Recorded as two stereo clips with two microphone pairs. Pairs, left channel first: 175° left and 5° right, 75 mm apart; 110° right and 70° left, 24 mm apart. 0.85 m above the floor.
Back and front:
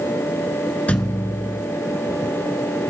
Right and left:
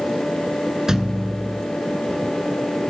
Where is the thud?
120° left, 0.9 m.